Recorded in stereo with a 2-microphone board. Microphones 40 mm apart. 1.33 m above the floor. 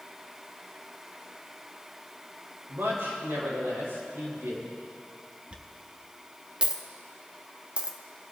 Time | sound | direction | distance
2.7 | a man speaking | 90° right | 5 m
5.5 | a dropped coin | 25° right (ahead or behind) | 0.8 m